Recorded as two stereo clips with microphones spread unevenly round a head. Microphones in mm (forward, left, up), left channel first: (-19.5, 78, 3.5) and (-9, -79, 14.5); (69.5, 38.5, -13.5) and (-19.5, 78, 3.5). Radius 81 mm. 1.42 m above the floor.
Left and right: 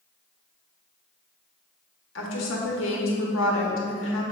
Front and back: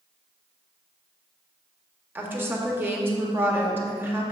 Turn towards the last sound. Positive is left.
turn(degrees=90)